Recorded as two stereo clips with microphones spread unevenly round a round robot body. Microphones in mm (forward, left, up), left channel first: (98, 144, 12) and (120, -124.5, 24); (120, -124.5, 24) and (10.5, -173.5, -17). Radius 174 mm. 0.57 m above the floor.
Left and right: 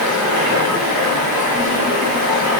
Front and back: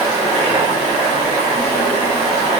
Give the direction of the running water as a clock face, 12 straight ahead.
4 o'clock.